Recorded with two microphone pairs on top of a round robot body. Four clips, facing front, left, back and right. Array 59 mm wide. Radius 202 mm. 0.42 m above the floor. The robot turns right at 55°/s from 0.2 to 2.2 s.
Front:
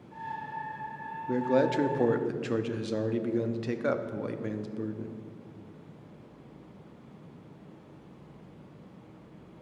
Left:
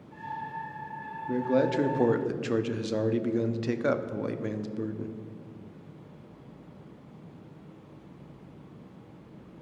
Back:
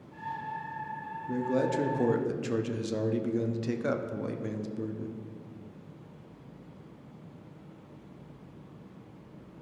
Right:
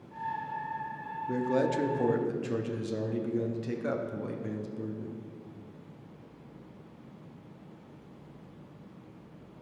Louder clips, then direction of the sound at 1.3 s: Left 3 dB, front 3 dB; 10° left.